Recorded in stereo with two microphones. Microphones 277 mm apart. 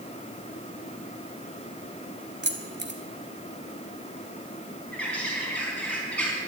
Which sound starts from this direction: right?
Keys jangling, at 2.4 s.